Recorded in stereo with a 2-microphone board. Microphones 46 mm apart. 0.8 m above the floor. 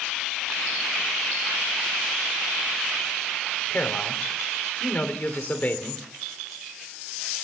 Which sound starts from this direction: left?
A man speaking, at 3.7 s.